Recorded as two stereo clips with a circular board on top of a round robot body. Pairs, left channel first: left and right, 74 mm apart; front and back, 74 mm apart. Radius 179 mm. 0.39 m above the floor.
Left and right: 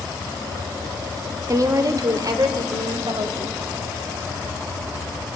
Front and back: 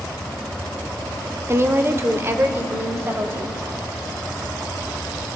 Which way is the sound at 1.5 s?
130° right.